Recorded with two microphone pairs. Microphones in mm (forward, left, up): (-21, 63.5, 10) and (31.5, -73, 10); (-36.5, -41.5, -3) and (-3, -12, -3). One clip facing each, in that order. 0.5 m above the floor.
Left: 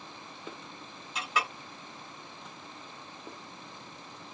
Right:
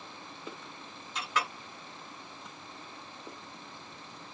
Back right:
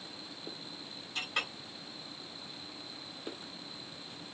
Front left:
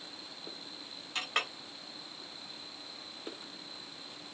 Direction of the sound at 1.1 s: 30° left.